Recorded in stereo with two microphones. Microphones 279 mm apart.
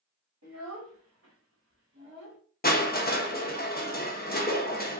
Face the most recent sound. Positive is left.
turn(degrees=35)  # may be behind; listen again after turning